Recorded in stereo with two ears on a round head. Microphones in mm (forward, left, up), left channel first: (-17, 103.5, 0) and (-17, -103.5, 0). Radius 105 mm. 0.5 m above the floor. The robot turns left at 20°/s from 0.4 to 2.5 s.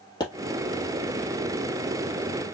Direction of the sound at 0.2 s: 15° left (ahead or behind).